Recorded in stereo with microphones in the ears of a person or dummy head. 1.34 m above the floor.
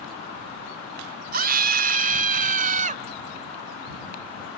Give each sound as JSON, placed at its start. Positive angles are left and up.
{"t": 1.3, "sound": "a scream", "side_deg": -45}